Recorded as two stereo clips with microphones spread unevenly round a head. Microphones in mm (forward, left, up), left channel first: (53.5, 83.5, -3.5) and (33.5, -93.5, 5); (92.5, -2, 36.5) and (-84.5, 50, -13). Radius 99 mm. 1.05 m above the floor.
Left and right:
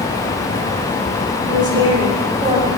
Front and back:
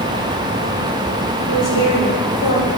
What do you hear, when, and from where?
1.5 s a woman speaking: 30° right, 5 m